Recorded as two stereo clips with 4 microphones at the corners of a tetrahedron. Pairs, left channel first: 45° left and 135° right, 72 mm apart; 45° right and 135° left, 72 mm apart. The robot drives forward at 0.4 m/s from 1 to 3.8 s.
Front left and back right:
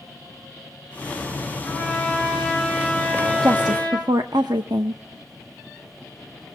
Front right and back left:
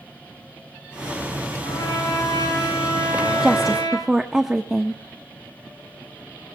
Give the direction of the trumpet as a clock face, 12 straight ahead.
1 o'clock.